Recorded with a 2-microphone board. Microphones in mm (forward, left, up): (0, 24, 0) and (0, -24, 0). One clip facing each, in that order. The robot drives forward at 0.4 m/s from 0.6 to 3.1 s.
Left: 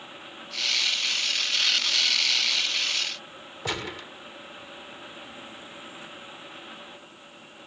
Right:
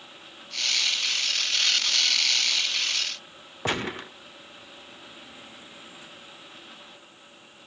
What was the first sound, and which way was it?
A gunshot, 40° right (ahead or behind).